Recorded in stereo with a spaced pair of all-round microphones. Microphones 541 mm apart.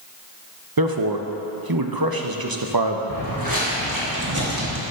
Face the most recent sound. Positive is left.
turn(degrees=-30)  # may be behind; listen again after turning